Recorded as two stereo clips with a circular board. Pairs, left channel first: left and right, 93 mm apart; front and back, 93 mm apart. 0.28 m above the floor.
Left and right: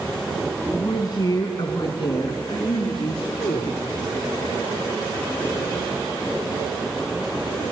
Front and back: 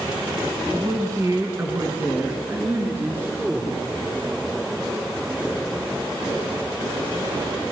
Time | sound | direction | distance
0.7 | a woman speaking | 130° left | 2 m